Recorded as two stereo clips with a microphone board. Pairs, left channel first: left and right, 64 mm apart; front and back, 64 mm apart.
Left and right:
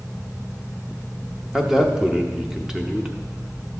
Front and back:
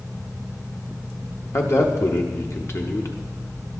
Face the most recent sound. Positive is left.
turn(degrees=-15)